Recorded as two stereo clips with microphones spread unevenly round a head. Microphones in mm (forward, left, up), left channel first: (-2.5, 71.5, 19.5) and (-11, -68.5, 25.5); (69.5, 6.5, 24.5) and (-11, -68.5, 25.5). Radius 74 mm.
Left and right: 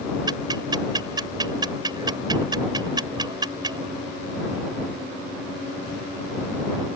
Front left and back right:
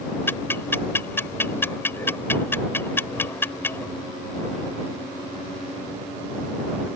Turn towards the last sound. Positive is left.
turn(degrees=-30)